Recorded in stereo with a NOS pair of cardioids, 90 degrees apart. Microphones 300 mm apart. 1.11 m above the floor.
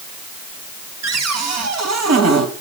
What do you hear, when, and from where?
1.0 s a cupboard door: 60° right, 4 m